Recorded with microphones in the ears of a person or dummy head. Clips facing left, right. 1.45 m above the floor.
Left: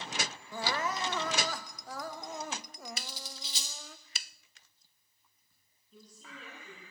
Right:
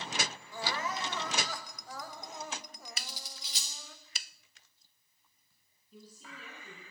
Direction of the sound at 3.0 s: 25° left (ahead or behind).